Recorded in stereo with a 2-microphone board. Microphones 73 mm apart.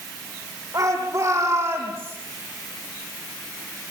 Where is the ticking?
I don't hear ticking.